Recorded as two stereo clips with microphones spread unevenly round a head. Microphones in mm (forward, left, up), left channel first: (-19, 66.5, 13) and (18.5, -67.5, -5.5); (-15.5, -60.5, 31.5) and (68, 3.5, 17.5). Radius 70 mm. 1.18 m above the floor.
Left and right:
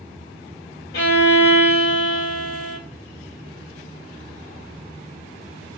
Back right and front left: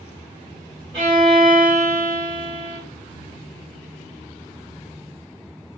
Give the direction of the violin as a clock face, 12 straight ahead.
9 o'clock.